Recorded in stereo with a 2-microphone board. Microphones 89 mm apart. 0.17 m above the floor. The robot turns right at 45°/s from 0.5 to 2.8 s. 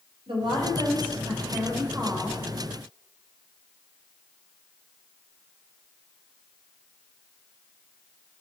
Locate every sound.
0.3 s a woman speaking: 85° right, 6 m; by 2.4 s straight ahead, 6 m